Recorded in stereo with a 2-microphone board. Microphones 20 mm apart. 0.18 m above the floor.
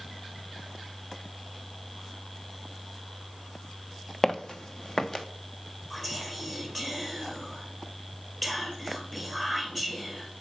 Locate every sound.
4.2 s footsteps: 30° left (ahead or behind), 0.8 m; by 5.2 s 35° left (ahead or behind), 1.3 m
5.9 s whispering: 10° left (ahead or behind), 3.5 m